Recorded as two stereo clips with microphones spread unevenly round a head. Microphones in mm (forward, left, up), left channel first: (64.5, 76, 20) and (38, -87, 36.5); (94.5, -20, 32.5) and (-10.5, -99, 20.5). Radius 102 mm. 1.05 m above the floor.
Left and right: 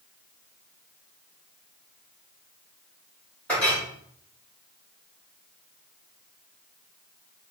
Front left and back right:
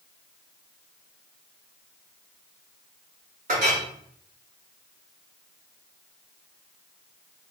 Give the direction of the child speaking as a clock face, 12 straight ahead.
I don't hear a child speaking.